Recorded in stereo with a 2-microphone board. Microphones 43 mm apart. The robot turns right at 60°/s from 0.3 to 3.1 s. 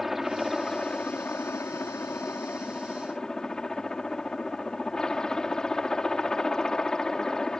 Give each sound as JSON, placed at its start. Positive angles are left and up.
{"t": 0.0, "sound": "a helicopter", "azimuth_deg": -5}